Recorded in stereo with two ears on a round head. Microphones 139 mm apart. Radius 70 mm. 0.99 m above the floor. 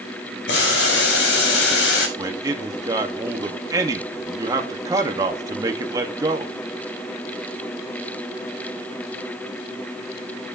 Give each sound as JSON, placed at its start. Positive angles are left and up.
{"t": 0.5, "sound": "boiling", "side_deg": 75, "distance_m": 4.0}
{"t": 2.2, "sound": "a man speaking", "side_deg": -20, "distance_m": 2.0}